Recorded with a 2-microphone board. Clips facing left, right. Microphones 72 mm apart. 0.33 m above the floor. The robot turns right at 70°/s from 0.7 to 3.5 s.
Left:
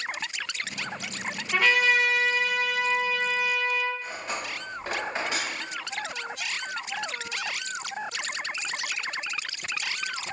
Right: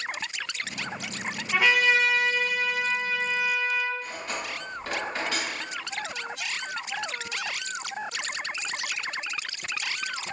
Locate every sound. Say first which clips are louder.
1.5 s a trumpet: even; 20° right, 0.9 m; by 3.9 s 120° left, 0.9 m
4.0 s cutlery clinking: even; 25° left (ahead or behind), 1.1 m